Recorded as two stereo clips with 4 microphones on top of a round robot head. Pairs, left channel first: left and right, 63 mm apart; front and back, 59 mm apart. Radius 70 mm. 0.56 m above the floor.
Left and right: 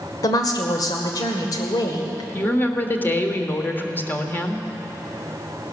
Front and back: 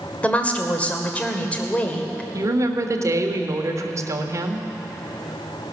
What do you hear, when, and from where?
0.2 s a woman speaking: 65° left, 2 m
2.3 s a woman speaking: 150° left, 1.6 m